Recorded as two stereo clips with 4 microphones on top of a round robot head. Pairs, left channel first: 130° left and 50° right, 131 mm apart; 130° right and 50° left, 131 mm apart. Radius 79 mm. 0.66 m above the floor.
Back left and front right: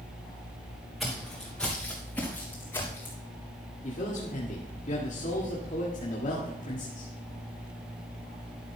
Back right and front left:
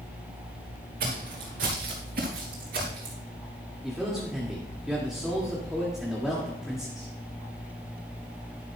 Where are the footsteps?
40° left, 3 m; by 3.1 s 60° left, 3.5 m.